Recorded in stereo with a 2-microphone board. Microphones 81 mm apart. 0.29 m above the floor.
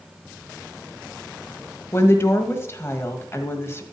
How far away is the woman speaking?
About 1.4 m.